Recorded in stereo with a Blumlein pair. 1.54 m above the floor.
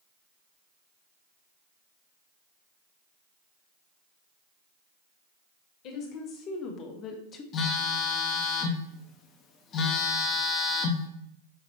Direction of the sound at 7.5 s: 30° left.